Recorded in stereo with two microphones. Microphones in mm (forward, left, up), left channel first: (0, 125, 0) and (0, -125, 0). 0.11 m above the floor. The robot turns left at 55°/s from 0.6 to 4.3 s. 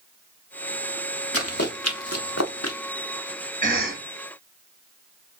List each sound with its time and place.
1.3 s running footsteps: 65° left (ahead or behind), 1.6 m; by 2.8 s 85° left, 1.0 m
3.6 s a cough: 30° right (ahead or behind), 2.5 m; by 4.0 s 40° right (ahead or behind), 2.5 m